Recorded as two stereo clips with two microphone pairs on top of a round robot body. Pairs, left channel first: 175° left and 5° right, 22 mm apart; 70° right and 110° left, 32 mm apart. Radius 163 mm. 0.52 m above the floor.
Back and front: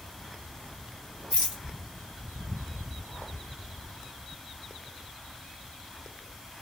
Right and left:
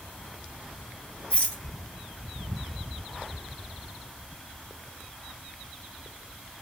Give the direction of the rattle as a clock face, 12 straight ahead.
12 o'clock.